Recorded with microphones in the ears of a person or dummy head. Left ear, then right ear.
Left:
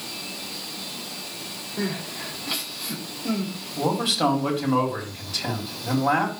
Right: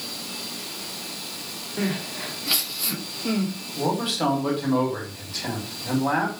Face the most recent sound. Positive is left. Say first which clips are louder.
# left 2 dB
turn(degrees=20)  # may be behind; listen again after turning